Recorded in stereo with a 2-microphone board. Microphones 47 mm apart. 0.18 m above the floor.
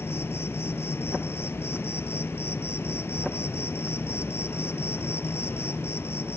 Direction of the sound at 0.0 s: 70° left (ahead or behind).